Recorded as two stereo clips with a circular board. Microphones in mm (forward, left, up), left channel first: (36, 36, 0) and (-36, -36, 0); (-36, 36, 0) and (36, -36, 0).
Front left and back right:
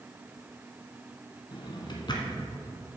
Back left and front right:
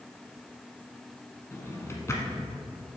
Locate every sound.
1.5 s a drawer: 75° left, 1.2 m